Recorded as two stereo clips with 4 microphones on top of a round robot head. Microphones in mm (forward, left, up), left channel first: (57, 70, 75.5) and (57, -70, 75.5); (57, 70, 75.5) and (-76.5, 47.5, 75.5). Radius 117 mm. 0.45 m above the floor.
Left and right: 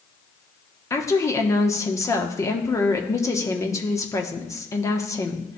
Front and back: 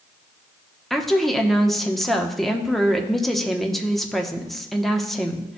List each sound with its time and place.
0.9 s a woman speaking: 95° left, 0.9 m